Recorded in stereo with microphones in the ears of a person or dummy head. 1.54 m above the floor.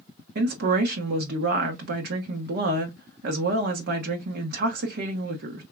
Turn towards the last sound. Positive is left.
turn(degrees=-50)  # may be behind; listen again after turning